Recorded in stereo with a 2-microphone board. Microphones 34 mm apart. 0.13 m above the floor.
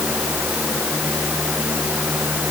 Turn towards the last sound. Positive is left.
No sound to turn to.